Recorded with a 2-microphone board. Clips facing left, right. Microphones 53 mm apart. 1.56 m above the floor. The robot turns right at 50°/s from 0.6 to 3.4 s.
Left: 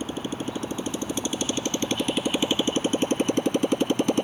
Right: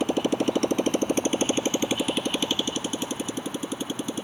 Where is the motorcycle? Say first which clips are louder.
Right 7 dB; 75° right; by 4.2 s 65° left.